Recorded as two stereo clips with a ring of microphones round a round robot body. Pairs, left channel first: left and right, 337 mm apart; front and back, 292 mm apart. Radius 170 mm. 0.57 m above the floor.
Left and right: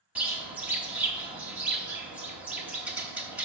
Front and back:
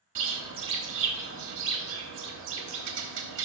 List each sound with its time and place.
0.1 s a bird: 175° right, 1.0 m